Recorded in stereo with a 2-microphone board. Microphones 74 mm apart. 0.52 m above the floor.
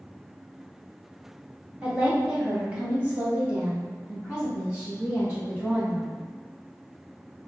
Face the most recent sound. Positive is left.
turn(degrees=-15)  # may be behind; listen again after turning